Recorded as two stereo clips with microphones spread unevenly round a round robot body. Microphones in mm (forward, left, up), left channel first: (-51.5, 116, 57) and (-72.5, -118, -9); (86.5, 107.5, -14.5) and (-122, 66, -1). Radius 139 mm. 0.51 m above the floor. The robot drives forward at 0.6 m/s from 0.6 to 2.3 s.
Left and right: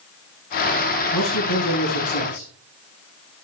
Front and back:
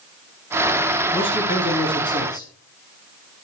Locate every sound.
1.1 s a man speaking: 75° left, 6 m; by 2.5 s 80° left, 5.5 m